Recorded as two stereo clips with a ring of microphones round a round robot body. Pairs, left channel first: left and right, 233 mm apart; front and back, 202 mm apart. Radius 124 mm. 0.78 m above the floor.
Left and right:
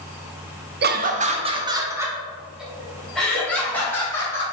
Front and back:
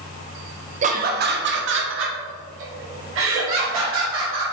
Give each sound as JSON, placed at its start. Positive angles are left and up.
{"t": 0.8, "sound": "laughter", "azimuth_deg": -130, "distance_m": 0.7}